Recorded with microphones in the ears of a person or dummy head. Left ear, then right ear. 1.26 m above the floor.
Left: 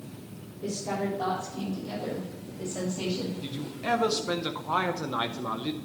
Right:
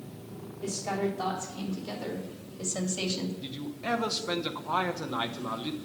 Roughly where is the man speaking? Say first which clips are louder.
Left 3 dB; centre.